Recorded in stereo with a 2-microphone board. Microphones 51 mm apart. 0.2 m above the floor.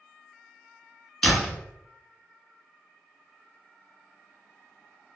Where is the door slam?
15° left (ahead or behind), 1.6 m.